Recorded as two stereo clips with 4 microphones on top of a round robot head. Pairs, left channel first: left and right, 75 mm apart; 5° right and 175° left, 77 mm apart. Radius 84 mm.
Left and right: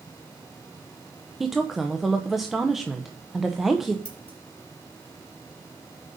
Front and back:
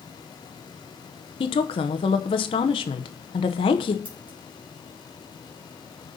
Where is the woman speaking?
Straight ahead, 0.8 m.